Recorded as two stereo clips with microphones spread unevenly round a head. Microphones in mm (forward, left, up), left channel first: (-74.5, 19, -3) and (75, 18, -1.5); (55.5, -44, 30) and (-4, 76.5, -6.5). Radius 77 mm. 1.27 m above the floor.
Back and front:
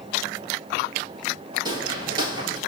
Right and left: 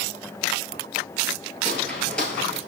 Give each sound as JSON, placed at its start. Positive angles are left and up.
{"t": 1.6, "sound": "footsteps", "azimuth_deg": -20, "distance_m": 1.4}